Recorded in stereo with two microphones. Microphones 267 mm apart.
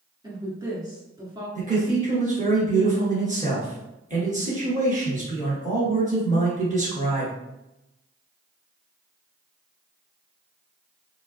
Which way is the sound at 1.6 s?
30° right (ahead or behind).